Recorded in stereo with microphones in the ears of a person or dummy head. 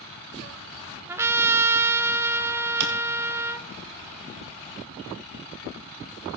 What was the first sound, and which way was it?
A trumpet, 15° right (ahead or behind).